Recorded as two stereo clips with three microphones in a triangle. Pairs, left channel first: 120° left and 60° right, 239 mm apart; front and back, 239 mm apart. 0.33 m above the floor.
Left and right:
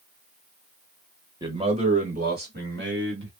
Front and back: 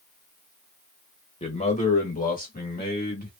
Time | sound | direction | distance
1.4 | a man speaking | 10° right | 1.1 m